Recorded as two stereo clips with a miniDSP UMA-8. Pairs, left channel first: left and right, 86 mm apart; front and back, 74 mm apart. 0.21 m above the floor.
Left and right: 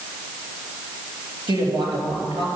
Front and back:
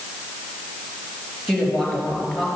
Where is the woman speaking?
85° right, 4 m.